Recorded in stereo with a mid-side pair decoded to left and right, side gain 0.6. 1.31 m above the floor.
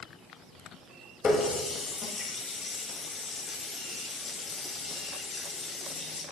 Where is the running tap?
35° left, 1.3 m.